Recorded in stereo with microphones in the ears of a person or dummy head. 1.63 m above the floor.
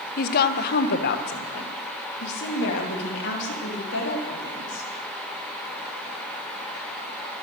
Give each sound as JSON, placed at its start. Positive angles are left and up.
{"t": 0.2, "sound": "a woman speaking", "side_deg": 50, "distance_m": 1.0}